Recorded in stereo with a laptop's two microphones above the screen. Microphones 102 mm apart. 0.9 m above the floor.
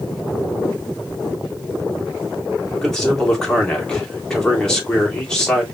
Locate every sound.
2.8 s a man speaking: 5° left (ahead or behind), 3 m